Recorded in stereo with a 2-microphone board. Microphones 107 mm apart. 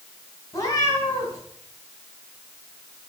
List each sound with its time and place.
0.5 s a cat meowing: 30° left (ahead or behind), 3 m